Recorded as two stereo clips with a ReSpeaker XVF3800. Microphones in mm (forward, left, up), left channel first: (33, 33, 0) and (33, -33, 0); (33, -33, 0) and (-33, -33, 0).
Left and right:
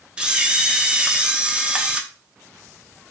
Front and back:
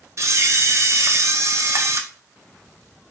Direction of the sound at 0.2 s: 160° right.